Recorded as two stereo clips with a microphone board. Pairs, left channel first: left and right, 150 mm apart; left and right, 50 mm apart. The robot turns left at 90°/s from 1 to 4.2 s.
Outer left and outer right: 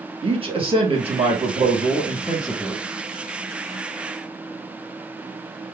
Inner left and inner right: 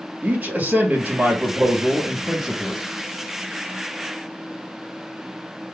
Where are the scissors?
No scissors in this recording.